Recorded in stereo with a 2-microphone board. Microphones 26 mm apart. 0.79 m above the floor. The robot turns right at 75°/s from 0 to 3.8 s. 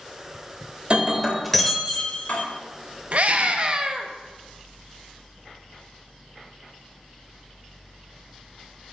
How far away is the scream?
About 0.7 m.